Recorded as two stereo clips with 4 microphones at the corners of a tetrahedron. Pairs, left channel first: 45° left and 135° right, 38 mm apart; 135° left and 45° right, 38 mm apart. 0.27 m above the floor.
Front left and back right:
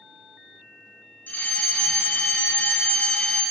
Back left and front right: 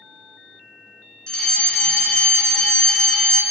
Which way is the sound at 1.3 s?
70° left.